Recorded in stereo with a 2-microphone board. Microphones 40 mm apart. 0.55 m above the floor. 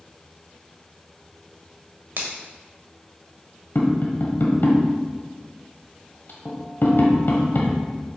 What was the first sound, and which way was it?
A finger snap, 65° right (ahead or behind).